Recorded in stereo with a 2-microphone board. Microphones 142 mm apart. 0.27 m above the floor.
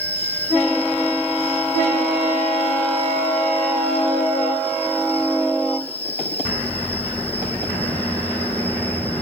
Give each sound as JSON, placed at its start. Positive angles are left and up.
{"t": 0.0, "sound": "an insect", "side_deg": 15, "distance_m": 1.3}